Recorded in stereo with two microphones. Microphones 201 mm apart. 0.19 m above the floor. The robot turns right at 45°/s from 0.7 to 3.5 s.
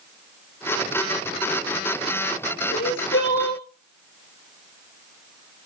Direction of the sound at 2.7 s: 85° left.